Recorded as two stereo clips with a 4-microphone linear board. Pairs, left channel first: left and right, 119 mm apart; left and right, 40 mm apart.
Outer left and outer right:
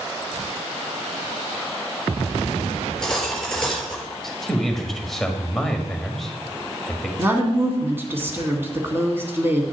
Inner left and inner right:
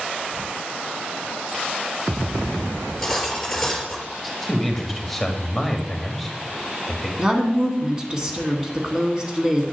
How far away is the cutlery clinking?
About 3.5 m.